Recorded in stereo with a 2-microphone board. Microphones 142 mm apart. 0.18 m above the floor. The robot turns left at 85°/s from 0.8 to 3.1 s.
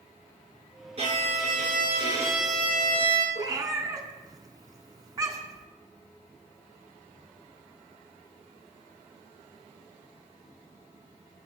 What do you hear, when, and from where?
1.0 s a violin: 50° right, 1.8 m; by 3.2 s 130° left, 1.8 m
3.4 s a cat meowing: 25° right (ahead or behind), 0.8 m